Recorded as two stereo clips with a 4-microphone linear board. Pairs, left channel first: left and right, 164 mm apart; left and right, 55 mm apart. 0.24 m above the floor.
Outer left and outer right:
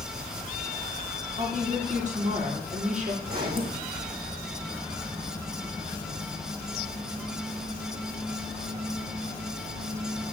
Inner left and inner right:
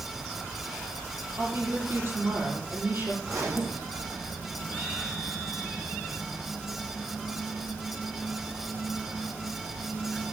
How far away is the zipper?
About 3.5 m.